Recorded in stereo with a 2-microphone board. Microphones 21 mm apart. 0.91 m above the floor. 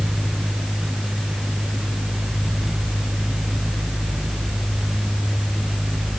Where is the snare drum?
I don't hear a snare drum.